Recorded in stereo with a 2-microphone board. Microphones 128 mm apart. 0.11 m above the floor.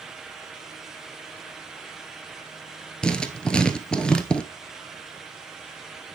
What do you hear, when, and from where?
3.0 s writing: 5° left (ahead or behind), 0.9 m